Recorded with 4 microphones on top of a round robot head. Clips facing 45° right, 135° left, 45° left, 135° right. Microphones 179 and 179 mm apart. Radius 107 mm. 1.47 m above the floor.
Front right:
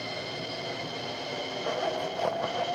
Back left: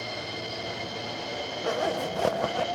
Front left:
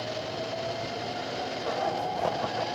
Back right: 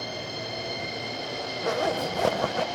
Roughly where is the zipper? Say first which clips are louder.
Back left 3 dB, back right 5 dB; behind.